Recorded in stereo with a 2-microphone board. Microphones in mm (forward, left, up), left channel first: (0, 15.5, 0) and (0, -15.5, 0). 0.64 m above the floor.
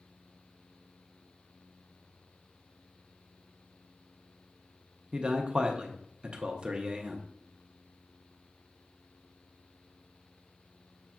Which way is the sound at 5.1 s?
35° right (ahead or behind).